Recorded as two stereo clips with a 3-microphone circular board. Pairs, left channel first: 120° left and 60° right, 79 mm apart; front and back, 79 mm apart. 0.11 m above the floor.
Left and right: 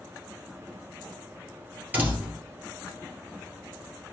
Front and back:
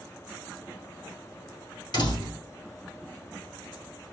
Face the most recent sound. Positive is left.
turn(degrees=5)